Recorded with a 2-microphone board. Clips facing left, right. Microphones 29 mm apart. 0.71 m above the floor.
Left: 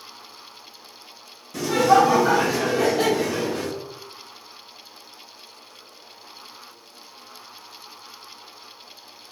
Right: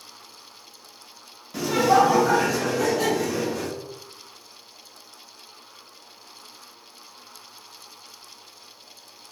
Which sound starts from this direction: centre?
Laughter, at 1.5 s.